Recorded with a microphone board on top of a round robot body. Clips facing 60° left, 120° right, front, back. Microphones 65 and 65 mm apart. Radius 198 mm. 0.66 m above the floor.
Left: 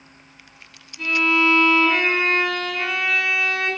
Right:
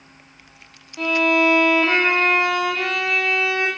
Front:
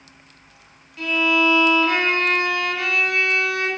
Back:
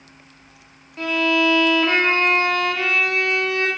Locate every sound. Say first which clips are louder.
1.0 s a violin: right 2 dB, even; 125° right, 1.6 m